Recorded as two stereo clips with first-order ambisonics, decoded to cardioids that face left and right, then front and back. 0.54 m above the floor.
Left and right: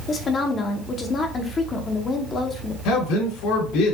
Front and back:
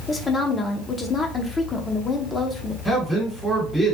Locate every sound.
0.1 s a woman speaking: 55° left, 0.8 m
2.9 s a man speaking: 90° left, 2.5 m